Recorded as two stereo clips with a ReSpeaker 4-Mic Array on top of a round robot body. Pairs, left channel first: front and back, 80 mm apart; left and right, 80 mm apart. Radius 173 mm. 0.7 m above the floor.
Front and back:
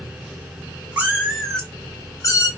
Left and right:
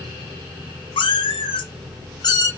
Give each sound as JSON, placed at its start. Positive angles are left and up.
{"t": 1.0, "sound": "a cat meowing", "azimuth_deg": 105, "distance_m": 0.9}